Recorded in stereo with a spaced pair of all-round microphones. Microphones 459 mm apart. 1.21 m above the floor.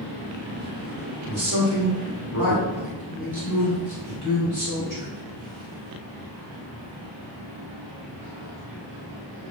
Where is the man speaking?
55° right (ahead or behind), 3 m.